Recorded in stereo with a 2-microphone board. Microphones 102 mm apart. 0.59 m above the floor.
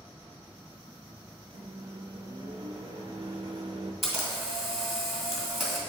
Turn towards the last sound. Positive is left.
turn(degrees=0)  # may be behind; listen again after turning